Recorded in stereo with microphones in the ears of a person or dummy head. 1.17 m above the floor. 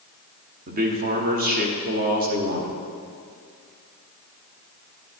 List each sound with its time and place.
0.7 s a man speaking: 40° right (ahead or behind), 0.9 m